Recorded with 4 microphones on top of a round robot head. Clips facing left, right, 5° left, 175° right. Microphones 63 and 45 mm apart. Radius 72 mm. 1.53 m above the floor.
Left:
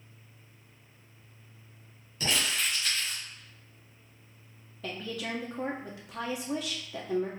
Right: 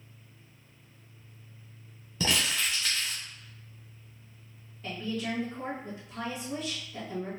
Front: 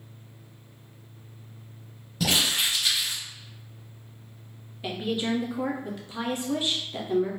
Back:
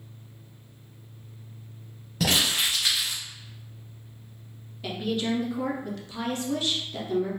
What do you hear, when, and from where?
2.2 s crumpling: 120° right, 1.4 m
4.8 s a woman speaking: 75° left, 1.1 m